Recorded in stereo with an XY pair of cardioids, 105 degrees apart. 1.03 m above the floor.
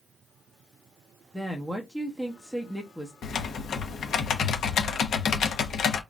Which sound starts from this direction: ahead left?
Typing on a keyboard, at 3.2 s.